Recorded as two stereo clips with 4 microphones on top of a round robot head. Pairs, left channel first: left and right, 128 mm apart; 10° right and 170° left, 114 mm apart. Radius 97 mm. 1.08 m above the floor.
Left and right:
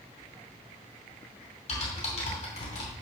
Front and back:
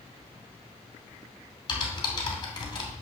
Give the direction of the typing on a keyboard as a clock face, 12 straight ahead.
11 o'clock.